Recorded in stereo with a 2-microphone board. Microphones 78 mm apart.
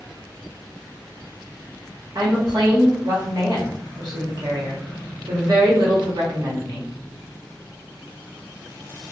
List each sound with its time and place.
2.1 s a woman speaking: 55° right (ahead or behind), 0.9 m